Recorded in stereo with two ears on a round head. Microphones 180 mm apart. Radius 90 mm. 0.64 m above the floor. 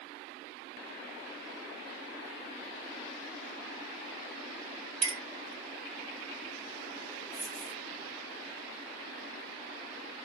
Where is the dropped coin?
20° left (ahead or behind), 1.5 m.